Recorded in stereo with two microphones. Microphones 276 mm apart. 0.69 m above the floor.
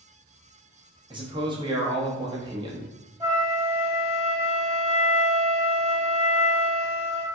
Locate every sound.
1.1 s a man speaking: 15° right (ahead or behind), 0.7 m
3.2 s a flute: 10° right (ahead or behind), 1.1 m